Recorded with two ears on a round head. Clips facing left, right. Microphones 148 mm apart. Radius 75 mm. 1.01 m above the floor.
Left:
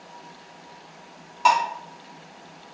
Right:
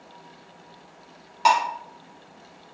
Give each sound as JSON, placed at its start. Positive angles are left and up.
{"t": 1.4, "sound": "dishes clattering", "side_deg": -5, "distance_m": 0.6}